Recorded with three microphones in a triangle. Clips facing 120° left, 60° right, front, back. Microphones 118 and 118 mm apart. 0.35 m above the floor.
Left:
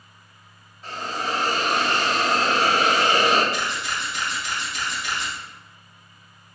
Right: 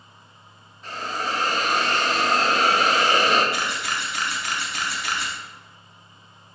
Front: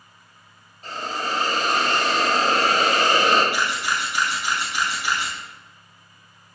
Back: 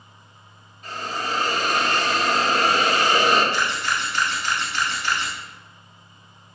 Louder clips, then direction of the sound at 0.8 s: Even, front 1 dB; 40° left.